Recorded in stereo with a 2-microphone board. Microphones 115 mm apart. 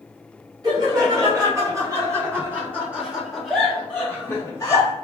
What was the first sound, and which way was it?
Laughter, 40° right (ahead or behind).